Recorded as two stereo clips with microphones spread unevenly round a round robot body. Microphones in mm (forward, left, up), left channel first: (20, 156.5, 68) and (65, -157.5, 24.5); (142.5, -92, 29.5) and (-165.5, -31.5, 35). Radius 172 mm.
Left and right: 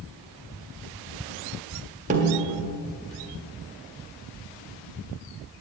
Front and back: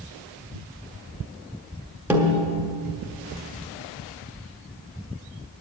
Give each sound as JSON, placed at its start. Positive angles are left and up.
{"t": 2.1, "sound": "a snare drum", "azimuth_deg": -110, "distance_m": 1.5}